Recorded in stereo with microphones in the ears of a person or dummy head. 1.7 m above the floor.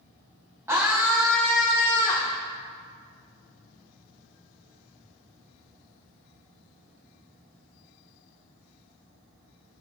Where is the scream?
10° right (ahead or behind), 1.1 m; by 2.4 s 20° left (ahead or behind), 1.7 m.